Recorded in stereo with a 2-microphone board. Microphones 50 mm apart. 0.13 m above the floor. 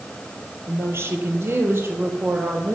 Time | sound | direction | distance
0.7 | a woman speaking | 60° right (ahead or behind) | 3 m